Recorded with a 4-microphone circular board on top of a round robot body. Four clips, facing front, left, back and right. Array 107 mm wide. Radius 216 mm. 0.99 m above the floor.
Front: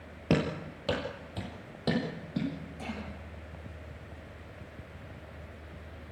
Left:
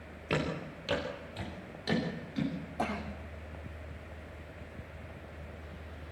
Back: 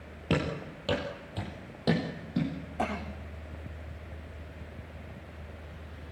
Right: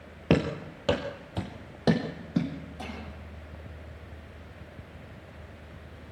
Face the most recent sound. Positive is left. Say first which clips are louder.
# left 9 dB, back 9 dB
turn(degrees=150)